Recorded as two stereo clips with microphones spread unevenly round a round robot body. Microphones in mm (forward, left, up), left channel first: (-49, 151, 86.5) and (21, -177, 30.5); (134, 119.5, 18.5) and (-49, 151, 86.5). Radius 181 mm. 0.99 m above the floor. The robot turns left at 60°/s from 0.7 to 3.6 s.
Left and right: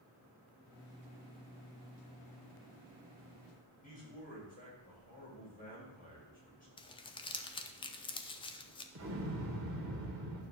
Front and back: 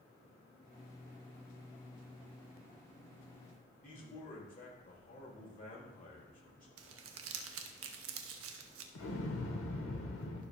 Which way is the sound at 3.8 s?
35° left.